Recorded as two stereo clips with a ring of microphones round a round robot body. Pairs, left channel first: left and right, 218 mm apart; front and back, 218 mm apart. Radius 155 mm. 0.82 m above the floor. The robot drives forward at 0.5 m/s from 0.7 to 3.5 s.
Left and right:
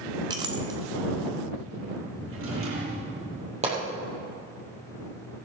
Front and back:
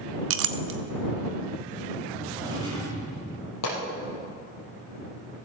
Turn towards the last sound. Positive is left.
turn(degrees=-30)